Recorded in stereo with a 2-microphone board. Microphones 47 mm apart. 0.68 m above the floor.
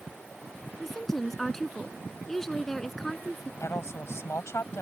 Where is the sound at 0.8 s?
10° left (ahead or behind).